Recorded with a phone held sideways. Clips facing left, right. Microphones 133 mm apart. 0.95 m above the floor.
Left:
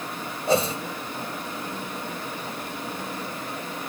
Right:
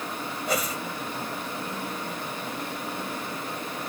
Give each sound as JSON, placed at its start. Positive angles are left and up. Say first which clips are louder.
{"t": 0.5, "sound": "a whoosh", "louder": "left 7 dB", "side_deg": 30}